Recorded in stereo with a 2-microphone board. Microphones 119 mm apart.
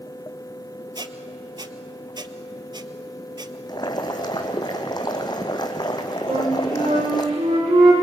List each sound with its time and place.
0.9 s a squeak: 40° right (ahead or behind), 1.0 m
3.7 s boiling: 35° left (ahead or behind), 2.5 m
6.3 s a flute: 60° right (ahead or behind), 9 m